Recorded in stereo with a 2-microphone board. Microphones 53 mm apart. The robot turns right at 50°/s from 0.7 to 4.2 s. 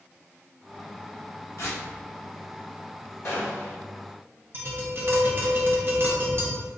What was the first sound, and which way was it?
Tearing paper, 55° left (ahead or behind).